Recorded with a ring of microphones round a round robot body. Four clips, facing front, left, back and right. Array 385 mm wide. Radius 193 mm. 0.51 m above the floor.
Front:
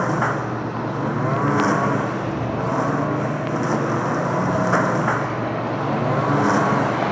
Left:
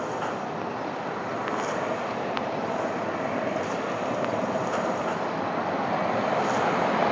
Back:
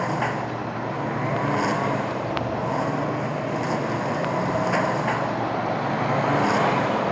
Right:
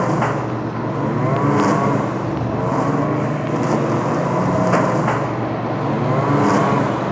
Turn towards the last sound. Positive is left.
turn(degrees=-75)